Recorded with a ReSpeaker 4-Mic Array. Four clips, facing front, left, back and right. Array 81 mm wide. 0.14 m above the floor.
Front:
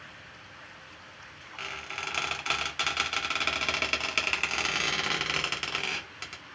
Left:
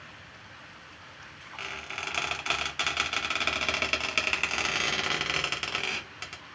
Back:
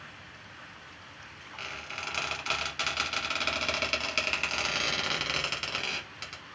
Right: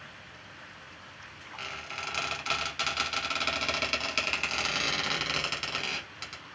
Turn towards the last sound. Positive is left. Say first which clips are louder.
# left 1 dB, front 2 dB
turn(degrees=55)